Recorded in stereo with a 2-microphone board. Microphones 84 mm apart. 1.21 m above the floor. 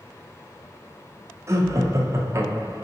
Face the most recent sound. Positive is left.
turn(degrees=-35)  # may be behind; listen again after turning